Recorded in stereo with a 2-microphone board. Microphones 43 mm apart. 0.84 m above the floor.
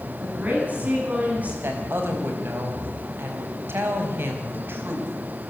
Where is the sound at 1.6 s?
55° right (ahead or behind), 4.5 m.